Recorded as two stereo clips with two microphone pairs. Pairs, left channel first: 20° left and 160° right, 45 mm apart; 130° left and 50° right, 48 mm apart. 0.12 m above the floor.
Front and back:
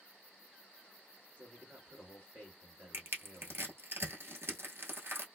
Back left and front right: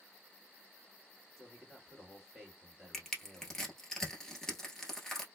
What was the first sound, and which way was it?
A man speaking, 145° right.